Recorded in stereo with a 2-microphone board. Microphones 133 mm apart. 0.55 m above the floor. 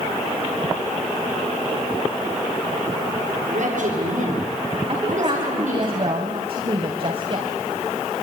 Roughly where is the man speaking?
Right.